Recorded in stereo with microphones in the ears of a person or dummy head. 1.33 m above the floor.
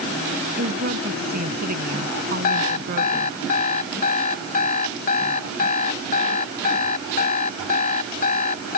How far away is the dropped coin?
No dropped coin in this recording.